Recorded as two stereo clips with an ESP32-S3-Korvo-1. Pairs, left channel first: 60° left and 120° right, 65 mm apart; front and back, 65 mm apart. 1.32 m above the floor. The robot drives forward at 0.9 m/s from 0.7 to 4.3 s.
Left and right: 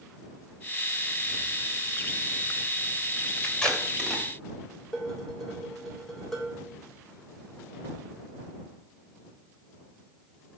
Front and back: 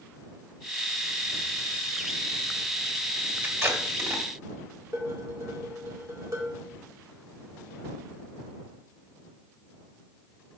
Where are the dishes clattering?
145° left, 3.5 m.